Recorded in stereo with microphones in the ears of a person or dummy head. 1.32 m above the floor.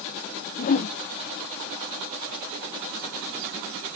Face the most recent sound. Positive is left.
turn(degrees=40)  # may be behind; listen again after turning